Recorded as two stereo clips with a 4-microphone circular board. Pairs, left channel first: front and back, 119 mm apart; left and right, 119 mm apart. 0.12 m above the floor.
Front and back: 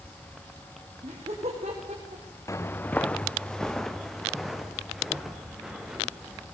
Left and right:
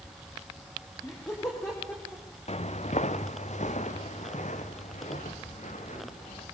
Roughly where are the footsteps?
Ahead left.